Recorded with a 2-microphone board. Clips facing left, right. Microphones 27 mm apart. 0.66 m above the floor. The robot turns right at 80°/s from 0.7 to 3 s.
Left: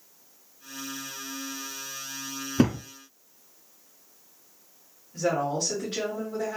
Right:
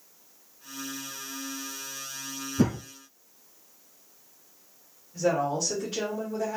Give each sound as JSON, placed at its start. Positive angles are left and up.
{"t": 2.6, "sound": "a thud", "side_deg": 70, "distance_m": 1.5}
{"t": 5.1, "sound": "a woman speaking", "side_deg": 50, "distance_m": 1.7}